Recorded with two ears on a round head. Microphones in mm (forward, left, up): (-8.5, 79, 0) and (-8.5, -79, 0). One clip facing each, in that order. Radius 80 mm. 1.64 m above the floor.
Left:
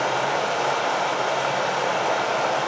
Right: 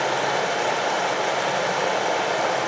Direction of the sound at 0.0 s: 15° right (ahead or behind).